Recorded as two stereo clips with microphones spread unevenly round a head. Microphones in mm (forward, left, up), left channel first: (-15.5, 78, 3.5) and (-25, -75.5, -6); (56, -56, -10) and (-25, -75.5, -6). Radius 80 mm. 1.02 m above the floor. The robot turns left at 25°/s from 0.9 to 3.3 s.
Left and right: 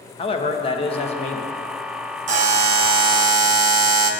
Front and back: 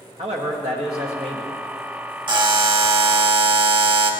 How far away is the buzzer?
About 1.0 m.